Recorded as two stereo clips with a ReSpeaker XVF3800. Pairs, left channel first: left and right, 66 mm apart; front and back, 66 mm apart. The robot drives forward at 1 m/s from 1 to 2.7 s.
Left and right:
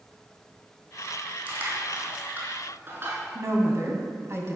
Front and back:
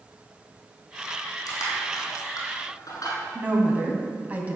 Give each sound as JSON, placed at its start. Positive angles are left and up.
{"t": 1.5, "sound": "crushing", "azimuth_deg": -25, "distance_m": 4.5}
{"t": 3.4, "sound": "a woman speaking", "azimuth_deg": -120, "distance_m": 2.0}